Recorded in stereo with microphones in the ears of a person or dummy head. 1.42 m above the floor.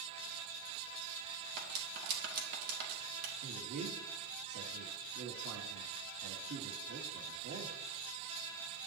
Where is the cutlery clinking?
55° right (ahead or behind), 2 m.